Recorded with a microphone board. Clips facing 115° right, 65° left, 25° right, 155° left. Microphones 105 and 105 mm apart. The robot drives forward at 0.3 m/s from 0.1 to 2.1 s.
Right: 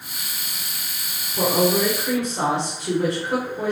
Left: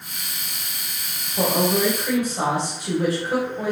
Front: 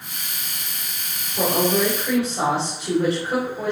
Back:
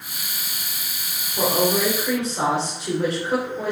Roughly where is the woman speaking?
Behind.